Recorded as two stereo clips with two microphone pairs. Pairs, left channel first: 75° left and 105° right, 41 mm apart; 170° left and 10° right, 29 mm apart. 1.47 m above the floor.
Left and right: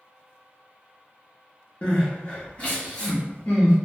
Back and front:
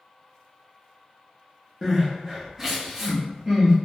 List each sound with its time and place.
1.8 s crying: 60° left, 0.9 m